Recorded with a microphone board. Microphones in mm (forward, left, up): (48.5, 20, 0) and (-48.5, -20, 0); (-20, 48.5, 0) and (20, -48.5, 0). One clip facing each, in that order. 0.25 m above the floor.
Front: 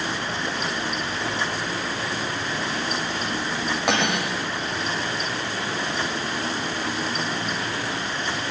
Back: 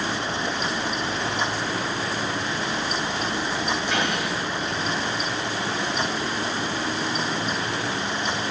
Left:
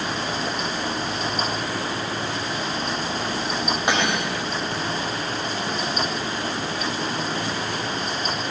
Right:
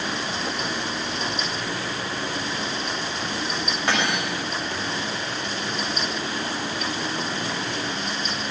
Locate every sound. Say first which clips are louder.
3.9 s cutlery clinking: front 2 dB, even; 40° left, 6.5 m